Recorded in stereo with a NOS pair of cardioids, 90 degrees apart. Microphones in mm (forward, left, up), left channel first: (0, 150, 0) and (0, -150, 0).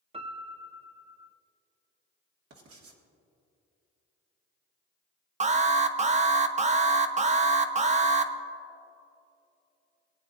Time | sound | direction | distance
0.1 | a piano | 20° right | 0.8 m
2.5 | writing | 55° right | 1.9 m
5.4 | an alarm | 25° right | 0.9 m